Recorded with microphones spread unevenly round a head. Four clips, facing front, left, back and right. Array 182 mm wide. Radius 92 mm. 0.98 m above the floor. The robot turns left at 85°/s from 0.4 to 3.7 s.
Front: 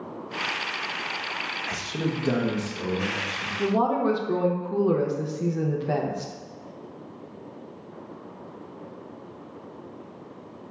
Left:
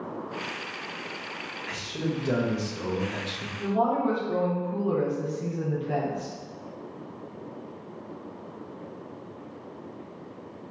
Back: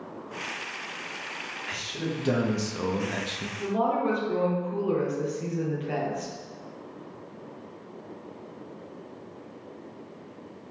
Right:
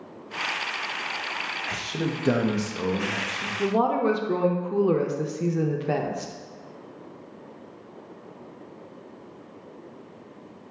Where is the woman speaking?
55° right, 0.6 m; by 6.3 s 65° right, 0.6 m.